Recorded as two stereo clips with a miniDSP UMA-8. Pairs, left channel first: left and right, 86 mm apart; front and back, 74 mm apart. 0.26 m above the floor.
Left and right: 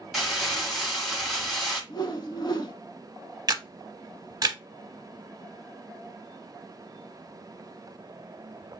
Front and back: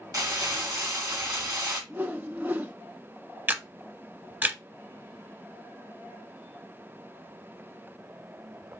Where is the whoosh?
120° left, 0.5 m.